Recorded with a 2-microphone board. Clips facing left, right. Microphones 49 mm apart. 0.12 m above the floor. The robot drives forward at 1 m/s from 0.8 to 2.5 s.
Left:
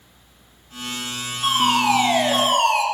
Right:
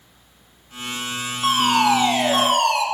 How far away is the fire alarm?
About 4.5 m.